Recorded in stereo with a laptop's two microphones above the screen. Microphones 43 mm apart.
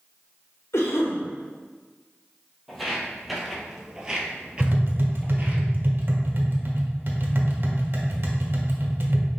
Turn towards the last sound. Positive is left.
turn(degrees=-45)  # may be behind; listen again after turning